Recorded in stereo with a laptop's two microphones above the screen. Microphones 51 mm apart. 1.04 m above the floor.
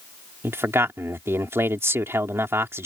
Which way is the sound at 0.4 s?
55° right (ahead or behind).